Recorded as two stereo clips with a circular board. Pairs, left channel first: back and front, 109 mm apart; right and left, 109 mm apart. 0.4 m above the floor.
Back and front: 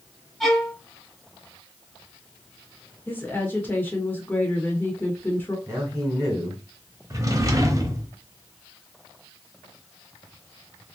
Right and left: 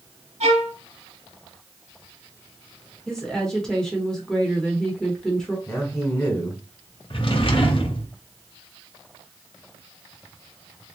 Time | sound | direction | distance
0.4 | a violin | 90° left | 0.8 m
3.1 | a woman speaking | 165° right | 1.1 m
5.7 | a man speaking | 35° right | 1.7 m
7.1 | a drawer | 55° right | 0.8 m